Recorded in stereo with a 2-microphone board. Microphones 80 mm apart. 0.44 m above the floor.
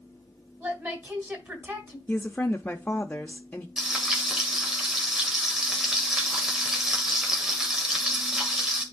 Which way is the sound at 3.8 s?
5° right (ahead or behind).